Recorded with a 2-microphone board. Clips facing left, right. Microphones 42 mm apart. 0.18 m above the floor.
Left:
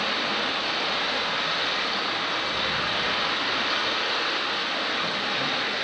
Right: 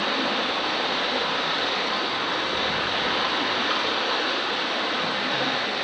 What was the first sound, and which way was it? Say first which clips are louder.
Running water: right 2 dB; 45° right (ahead or behind).